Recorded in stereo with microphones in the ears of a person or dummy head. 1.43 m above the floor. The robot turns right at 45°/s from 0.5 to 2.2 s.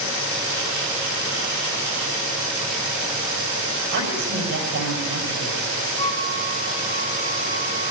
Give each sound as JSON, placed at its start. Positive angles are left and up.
{"t": 3.9, "sound": "a woman speaking", "side_deg": -60, "distance_m": 8.0}
{"t": 6.0, "sound": "a flute", "side_deg": 15, "distance_m": 8.0}